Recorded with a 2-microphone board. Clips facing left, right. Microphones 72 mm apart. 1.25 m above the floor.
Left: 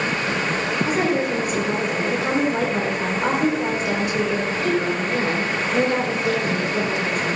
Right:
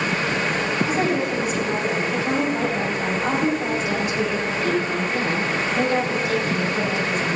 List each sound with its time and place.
0.8 s a woman speaking: 65° left (ahead or behind), 4 m